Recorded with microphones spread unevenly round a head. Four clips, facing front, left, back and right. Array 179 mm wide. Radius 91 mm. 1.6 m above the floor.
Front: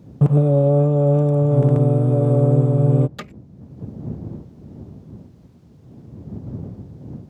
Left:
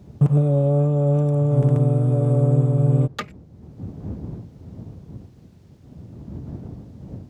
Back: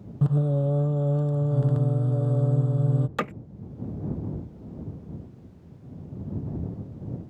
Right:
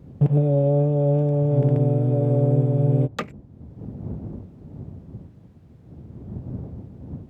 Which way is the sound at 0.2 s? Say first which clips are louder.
Even, front 9 dB; 15° right.